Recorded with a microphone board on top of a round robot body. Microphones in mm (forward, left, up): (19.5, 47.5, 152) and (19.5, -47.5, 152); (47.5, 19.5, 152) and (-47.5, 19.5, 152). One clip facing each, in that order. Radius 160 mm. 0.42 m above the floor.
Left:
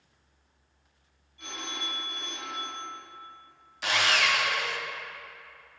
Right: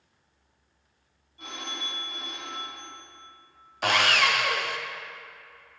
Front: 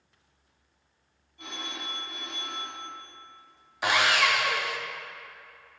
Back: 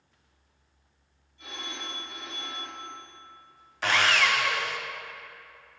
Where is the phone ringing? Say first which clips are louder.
Even, front 1 dB; 35° right, 3 m.